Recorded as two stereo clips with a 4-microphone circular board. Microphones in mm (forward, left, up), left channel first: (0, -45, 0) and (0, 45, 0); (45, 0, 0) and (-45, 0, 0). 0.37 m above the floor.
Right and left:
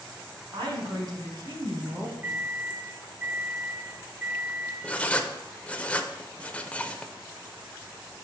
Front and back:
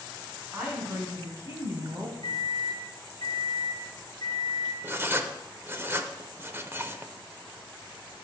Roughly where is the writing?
Behind right.